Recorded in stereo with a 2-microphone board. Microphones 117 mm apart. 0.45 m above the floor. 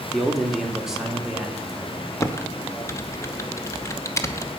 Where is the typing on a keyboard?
25° left (ahead or behind), 0.9 m.